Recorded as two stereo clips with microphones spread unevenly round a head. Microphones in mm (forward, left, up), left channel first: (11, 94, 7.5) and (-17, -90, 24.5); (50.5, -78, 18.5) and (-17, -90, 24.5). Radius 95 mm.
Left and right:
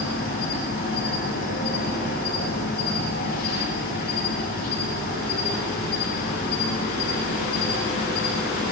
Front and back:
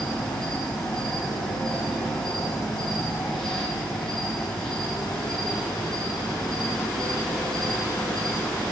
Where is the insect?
90° left, 2.5 m.